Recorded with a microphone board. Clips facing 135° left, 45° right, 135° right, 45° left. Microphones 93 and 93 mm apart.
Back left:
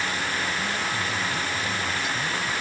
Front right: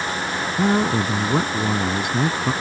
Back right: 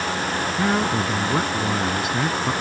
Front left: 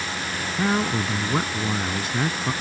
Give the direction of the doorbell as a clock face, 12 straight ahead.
No doorbell in this recording.